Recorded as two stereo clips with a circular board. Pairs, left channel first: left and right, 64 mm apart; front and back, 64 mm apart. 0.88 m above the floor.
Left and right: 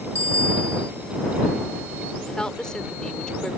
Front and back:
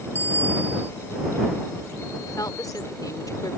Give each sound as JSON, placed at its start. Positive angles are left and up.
{"t": 0.1, "sound": "a bicycle bell", "azimuth_deg": -55}
{"t": 2.2, "sound": "a woman speaking", "azimuth_deg": 10}